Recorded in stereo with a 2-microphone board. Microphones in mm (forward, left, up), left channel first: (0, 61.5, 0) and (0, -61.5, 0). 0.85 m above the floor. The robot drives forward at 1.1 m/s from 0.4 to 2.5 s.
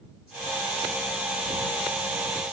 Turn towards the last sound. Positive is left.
No sound to turn to.